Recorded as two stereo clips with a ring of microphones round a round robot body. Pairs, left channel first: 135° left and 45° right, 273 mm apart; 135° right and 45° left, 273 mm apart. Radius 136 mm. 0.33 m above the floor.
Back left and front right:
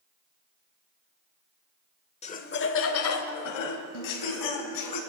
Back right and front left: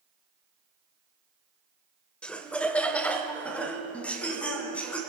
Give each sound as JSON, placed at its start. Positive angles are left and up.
{"t": 2.2, "sound": "laughter", "azimuth_deg": 145, "distance_m": 0.9}